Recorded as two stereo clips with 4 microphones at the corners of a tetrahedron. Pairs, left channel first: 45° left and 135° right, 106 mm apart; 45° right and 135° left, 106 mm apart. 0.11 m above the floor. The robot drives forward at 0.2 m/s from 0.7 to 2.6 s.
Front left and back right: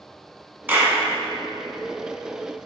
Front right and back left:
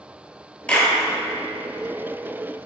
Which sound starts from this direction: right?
A clap, at 0.7 s.